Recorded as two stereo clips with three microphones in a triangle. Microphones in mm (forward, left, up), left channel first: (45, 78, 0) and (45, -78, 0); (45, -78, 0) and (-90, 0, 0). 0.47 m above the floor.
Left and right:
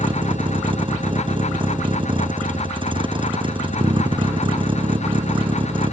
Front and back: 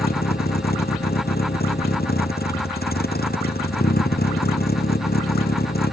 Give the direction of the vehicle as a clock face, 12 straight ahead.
1 o'clock.